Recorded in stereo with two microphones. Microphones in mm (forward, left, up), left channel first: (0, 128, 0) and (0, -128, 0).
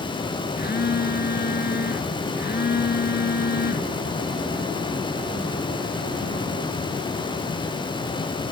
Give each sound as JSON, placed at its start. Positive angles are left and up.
{"t": 0.6, "sound": "a phone buzzing", "side_deg": 40, "distance_m": 0.8}